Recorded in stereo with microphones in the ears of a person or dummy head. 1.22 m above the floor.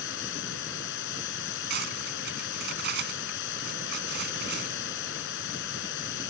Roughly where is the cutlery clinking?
Right.